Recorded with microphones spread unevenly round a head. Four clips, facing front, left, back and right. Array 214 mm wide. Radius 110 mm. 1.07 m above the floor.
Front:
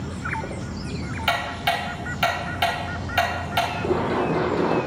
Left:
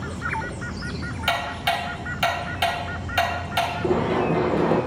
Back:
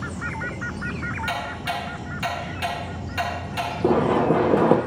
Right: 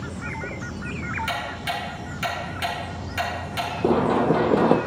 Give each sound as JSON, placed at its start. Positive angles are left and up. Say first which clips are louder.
{"t": 1.3, "sound": "ticking", "louder": "left 4 dB, front 7 dB", "azimuth_deg": 30, "distance_m": 3.0}
{"t": 3.8, "sound": "running footsteps", "louder": "right 4 dB, back 7 dB", "azimuth_deg": -110, "distance_m": 1.3}